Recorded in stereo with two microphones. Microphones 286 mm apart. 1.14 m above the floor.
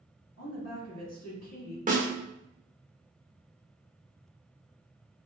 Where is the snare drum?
30° right (ahead or behind), 0.9 m.